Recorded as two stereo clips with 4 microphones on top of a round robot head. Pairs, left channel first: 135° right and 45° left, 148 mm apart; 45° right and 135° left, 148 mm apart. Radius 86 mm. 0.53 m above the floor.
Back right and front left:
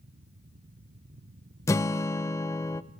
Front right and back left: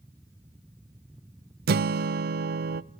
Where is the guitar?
155° left, 0.6 m.